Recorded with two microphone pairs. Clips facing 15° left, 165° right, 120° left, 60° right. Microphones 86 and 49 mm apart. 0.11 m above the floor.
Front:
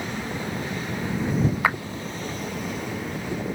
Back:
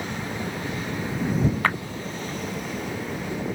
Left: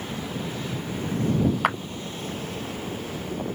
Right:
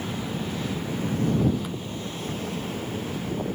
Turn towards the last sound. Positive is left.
turn(degrees=95)